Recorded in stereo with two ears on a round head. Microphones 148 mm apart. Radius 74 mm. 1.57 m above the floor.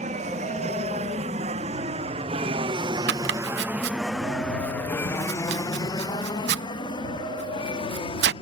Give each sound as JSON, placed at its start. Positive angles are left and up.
{"t": 0.0, "sound": "an aircraft", "side_deg": -45}
{"t": 3.1, "sound": "chopping", "side_deg": -70}